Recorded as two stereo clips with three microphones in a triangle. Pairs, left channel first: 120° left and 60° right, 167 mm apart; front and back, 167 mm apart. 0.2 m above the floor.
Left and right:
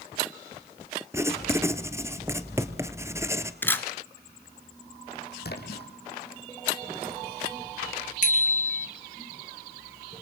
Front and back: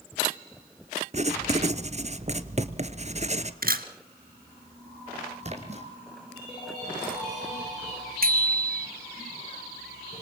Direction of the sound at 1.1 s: 135° right.